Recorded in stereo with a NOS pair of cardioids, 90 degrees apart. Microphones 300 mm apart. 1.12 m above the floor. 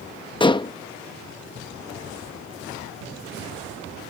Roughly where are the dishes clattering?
Ahead.